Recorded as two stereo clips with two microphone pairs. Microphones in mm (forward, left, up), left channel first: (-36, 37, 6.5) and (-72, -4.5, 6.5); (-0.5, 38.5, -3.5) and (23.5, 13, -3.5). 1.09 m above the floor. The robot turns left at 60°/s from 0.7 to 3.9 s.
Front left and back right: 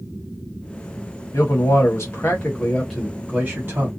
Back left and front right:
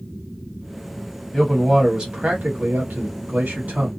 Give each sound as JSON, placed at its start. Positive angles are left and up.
{"t": 1.3, "sound": "a man speaking", "azimuth_deg": 55, "distance_m": 1.2}